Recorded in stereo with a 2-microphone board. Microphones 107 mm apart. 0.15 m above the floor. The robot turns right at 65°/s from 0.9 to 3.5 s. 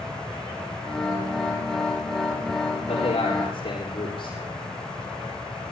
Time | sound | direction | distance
2.8 | a man speaking | 80° left | 9 m